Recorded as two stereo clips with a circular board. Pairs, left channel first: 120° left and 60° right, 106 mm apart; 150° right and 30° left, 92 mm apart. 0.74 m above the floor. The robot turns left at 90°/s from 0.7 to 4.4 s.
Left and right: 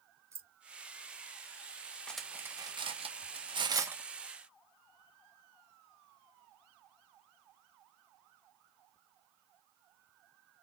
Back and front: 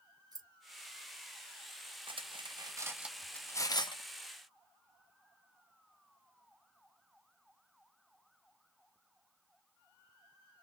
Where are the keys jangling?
Straight ahead, 0.7 m.